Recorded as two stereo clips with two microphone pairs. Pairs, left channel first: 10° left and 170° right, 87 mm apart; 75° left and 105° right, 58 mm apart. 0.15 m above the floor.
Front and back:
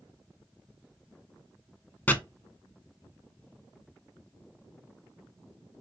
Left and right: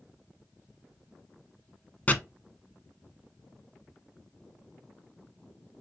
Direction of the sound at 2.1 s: 55° left.